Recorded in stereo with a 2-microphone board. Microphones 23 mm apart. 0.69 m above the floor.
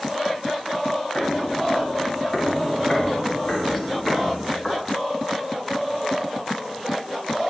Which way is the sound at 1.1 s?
45° left (ahead or behind).